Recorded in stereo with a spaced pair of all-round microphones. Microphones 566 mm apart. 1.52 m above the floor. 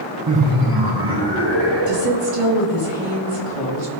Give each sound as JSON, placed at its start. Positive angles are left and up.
{"t": 0.3, "sound": "laughter", "side_deg": -30, "distance_m": 0.6}
{"t": 1.9, "sound": "a woman speaking", "side_deg": -65, "distance_m": 2.0}